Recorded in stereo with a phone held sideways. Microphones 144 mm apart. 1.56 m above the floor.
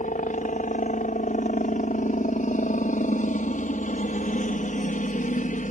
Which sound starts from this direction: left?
A helicopter, at 0.0 s.